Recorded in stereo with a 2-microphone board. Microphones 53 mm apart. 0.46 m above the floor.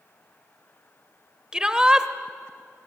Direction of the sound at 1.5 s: 15° right (ahead or behind).